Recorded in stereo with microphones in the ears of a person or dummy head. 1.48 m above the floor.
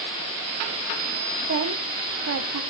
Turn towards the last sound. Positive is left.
turn(degrees=-70)  # may be behind; listen again after turning